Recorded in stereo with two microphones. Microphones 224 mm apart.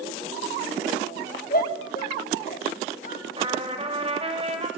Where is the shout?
40° left (ahead or behind), 6 m.